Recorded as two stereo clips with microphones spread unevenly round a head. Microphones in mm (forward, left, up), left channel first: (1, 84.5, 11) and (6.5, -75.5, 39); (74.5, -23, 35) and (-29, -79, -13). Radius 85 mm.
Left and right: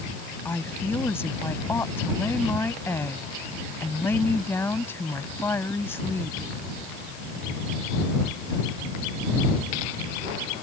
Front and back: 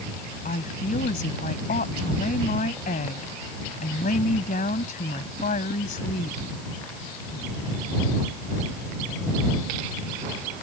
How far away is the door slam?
I don't hear a door slam.